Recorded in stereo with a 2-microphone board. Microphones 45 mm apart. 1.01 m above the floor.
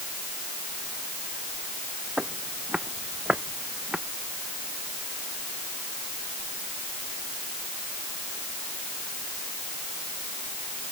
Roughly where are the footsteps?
Right.